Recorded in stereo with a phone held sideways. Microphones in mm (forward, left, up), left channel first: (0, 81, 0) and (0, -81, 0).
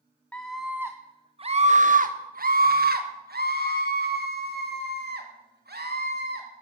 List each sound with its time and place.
0.3 s a scream: 10° left (ahead or behind), 0.8 m; by 6.5 s 85° right, 3 m